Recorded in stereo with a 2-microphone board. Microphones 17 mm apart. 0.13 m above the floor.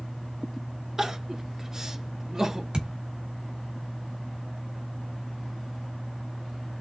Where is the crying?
35° right (ahead or behind), 1.2 m.